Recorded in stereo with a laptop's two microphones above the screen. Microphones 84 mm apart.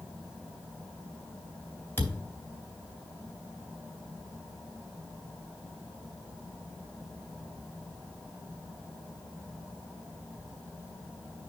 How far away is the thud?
About 3.5 m.